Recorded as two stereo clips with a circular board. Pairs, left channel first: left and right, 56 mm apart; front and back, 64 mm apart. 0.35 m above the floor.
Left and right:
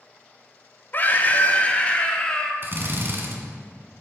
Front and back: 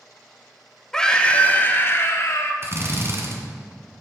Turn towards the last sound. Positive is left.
turn(degrees=-135)